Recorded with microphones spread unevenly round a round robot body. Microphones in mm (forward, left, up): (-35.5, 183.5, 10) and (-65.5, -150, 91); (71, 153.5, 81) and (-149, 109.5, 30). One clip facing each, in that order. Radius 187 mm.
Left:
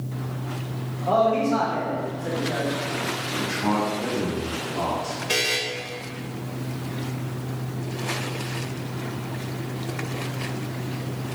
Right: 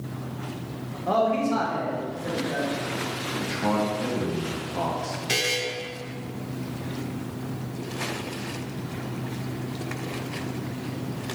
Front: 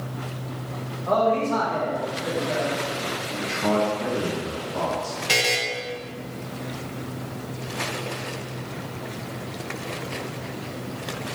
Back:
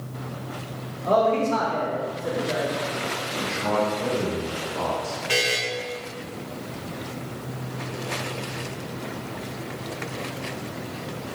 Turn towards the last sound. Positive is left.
turn(degrees=-10)